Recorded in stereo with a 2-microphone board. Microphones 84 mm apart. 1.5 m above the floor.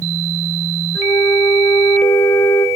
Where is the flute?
45° left (ahead or behind), 0.6 m.